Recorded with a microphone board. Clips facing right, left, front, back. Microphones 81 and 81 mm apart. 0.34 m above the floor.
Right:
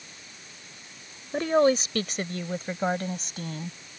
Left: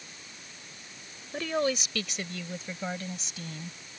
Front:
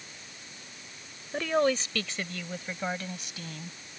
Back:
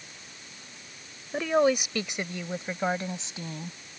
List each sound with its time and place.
1.3 s a woman speaking: 105° right; by 3.8 s 120° right